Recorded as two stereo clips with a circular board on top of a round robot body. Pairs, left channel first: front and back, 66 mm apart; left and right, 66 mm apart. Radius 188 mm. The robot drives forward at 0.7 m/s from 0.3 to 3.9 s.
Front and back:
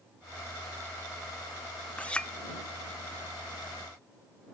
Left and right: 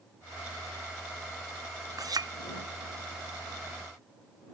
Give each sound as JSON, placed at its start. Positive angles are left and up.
{"t": 2.0, "sound": "a clink", "azimuth_deg": -70}